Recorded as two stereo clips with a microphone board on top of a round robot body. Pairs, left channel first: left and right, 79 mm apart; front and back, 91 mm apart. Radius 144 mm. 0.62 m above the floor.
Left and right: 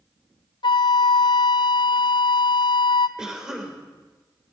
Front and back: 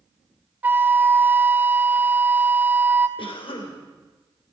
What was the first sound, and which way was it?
A flute, 110° left.